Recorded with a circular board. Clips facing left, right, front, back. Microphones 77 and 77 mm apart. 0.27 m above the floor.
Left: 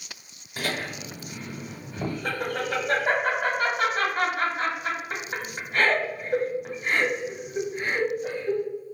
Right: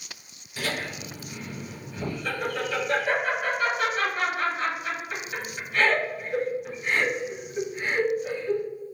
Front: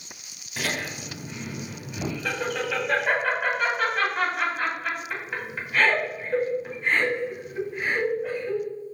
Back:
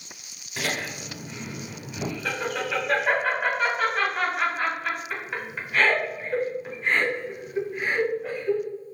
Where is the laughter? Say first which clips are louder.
Left 1 dB, even; 90° left, 1.4 m.